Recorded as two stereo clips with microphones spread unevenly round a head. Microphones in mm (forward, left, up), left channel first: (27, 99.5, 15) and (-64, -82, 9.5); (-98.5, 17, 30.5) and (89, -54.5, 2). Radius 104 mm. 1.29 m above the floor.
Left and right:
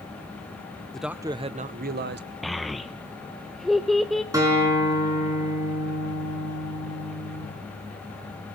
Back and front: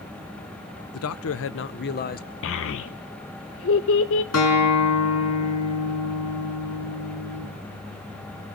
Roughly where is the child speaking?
Behind left.